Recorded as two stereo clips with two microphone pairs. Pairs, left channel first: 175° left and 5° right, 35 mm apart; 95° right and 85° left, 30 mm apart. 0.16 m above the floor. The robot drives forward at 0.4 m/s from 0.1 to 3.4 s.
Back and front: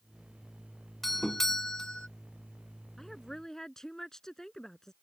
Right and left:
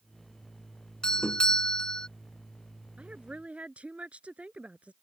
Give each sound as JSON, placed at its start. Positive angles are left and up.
{"t": 1.0, "sound": "a doorbell", "azimuth_deg": -105}
{"t": 3.0, "sound": "a woman speaking", "azimuth_deg": 95}